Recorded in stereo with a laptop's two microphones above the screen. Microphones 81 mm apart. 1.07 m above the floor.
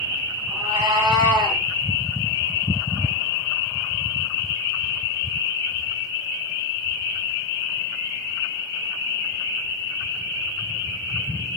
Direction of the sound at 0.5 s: 75° right (ahead or behind).